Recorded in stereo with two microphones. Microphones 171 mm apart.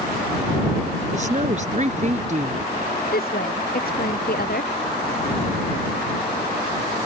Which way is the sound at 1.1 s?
45° right (ahead or behind).